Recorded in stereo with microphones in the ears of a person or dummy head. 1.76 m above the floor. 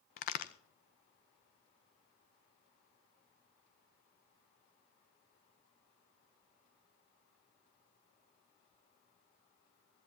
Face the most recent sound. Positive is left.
turn(degrees=35)  # may be behind; listen again after turning